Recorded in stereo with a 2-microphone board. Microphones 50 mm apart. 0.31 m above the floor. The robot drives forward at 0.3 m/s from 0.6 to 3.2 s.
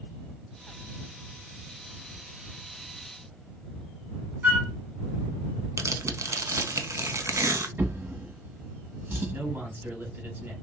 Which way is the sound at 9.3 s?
45° right (ahead or behind).